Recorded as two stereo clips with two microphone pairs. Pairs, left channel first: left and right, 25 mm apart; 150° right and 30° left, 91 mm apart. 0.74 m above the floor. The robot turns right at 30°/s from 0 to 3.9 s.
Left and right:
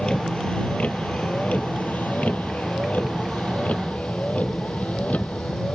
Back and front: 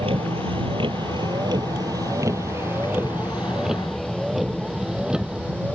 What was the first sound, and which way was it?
A vehicle, 35° left.